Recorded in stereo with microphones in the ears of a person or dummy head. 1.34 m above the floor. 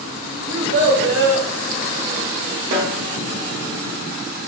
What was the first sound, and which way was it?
A child speaking, 55° right (ahead or behind).